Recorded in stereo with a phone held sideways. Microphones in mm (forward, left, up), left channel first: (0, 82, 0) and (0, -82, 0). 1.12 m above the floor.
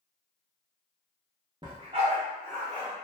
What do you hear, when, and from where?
1.6 s a dog barking: 30° right (ahead or behind), 0.7 m; by 2.9 s 45° right (ahead or behind), 1.2 m